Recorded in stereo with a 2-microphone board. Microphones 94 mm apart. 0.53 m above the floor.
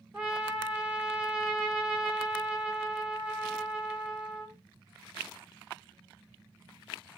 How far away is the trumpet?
About 1.9 m.